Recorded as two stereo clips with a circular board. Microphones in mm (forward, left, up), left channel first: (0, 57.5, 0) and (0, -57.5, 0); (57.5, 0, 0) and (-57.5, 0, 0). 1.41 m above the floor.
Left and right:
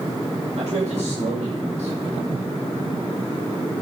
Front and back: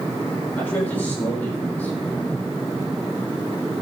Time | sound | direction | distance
0.6 | a man speaking | 75° right | 5.5 m